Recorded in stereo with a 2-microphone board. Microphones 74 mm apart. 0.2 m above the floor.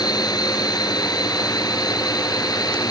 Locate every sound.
0.0 s a drone: 65° left (ahead or behind); by 2.9 s 60° left (ahead or behind)